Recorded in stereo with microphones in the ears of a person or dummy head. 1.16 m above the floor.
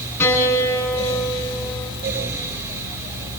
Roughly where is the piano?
Centre.